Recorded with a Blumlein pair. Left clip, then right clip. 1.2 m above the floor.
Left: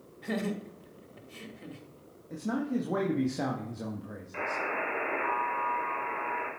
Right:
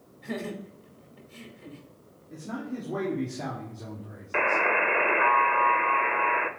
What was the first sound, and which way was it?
Laughter, 20° left.